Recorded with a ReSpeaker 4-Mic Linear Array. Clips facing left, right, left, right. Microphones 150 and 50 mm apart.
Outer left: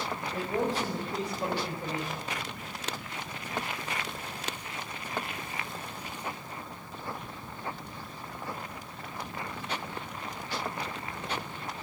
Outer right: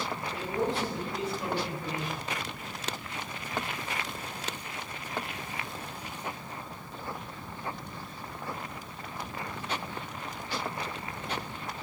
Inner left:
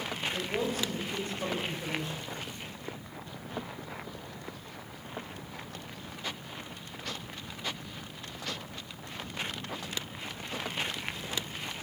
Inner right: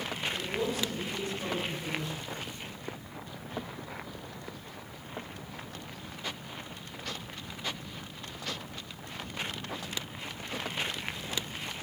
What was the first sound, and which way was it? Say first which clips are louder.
A man speaking: outer left 1 dB, inner left 1 dB; 45° left (ahead or behind).